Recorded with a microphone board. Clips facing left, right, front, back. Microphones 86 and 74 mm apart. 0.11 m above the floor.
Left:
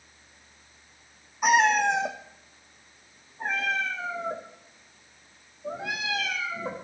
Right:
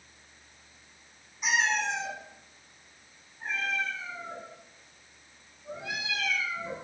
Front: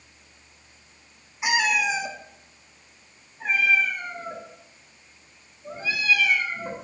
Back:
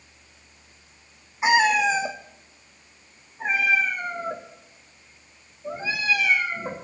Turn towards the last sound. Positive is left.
turn(degrees=115)